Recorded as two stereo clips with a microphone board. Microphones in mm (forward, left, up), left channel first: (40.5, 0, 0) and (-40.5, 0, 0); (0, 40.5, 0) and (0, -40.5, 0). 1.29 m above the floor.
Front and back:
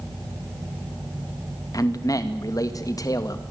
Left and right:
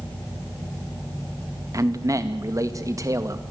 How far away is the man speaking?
About 2 m.